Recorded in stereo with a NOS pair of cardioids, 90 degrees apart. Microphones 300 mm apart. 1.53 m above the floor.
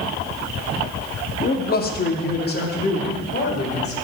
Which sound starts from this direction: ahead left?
A man speaking, at 1.4 s.